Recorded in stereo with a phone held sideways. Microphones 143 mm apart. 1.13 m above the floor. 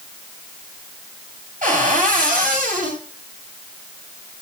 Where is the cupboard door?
70° right (ahead or behind), 4 m.